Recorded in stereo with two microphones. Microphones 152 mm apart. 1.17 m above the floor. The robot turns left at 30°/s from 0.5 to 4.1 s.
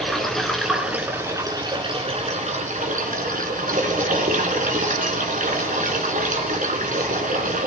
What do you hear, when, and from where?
0.0 s running water: straight ahead, 2.5 m; by 7.7 s 105° right, 2.5 m